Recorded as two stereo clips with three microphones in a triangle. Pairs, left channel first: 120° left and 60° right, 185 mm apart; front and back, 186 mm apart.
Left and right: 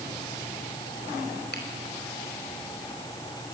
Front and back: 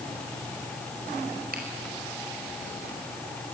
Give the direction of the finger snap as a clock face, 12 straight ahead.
7 o'clock.